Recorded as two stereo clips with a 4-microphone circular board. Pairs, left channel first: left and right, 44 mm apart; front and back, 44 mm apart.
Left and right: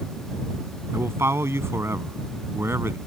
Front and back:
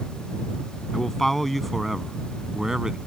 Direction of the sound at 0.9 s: 80° right.